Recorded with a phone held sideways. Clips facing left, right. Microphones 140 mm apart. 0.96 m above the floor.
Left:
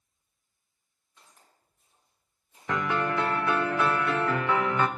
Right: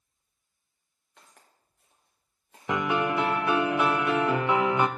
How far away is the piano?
About 0.5 m.